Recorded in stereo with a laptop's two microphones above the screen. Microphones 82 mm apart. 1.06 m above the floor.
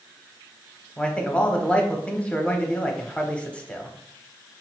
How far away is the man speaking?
About 0.7 m.